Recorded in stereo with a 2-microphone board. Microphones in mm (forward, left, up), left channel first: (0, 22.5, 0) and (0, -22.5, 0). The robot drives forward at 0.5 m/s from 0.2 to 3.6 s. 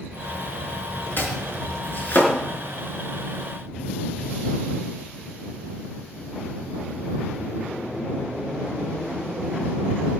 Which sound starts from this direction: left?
Chopping, at 1.2 s.